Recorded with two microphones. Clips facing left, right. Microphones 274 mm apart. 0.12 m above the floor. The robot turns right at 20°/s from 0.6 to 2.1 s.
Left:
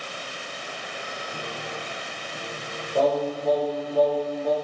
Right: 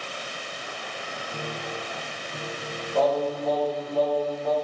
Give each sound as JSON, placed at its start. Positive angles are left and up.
{"t": 1.3, "sound": "a piano", "side_deg": -10, "distance_m": 3.0}
{"t": 3.0, "sound": "singing", "side_deg": 15, "distance_m": 4.5}